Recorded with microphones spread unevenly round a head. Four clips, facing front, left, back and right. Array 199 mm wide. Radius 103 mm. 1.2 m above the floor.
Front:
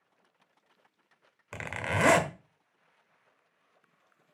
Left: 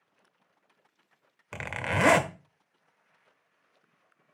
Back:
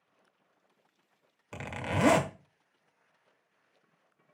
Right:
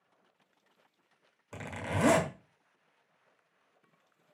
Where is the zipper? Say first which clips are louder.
Left 5 dB, front 1 dB; 85° left, 1.1 m.